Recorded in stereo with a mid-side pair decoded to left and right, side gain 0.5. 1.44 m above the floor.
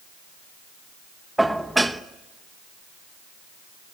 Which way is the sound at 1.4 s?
5° right.